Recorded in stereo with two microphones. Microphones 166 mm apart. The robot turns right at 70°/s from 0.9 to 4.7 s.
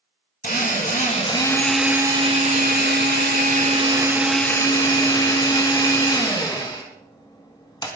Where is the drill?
120° left, 3.5 m; by 7.9 s 25° left, 3.5 m.